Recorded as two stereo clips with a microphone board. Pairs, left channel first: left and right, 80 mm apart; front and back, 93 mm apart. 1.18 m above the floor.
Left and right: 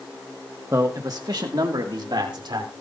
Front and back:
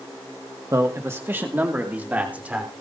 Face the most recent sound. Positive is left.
turn(degrees=-105)